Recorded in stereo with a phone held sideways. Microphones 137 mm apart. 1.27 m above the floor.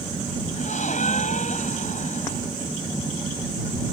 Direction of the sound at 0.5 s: 65° left (ahead or behind).